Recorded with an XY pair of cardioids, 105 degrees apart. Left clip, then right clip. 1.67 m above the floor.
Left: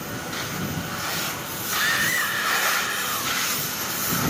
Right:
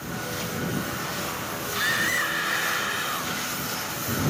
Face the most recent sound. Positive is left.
turn(degrees=10)